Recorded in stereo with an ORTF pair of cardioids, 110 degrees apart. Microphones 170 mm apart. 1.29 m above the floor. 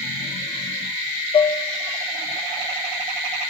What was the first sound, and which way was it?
Dishes clattering, 35° left.